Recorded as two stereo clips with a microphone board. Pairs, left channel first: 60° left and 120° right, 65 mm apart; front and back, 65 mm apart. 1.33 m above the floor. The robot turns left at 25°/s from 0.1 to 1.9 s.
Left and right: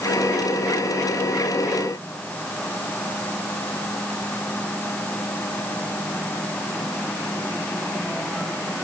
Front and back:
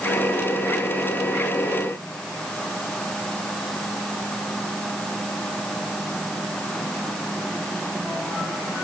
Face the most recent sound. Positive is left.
No sound to turn to.